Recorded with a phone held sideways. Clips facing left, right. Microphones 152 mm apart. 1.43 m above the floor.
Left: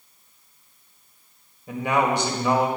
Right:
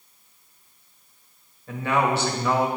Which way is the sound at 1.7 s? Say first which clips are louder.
Left 1 dB; 15° left (ahead or behind).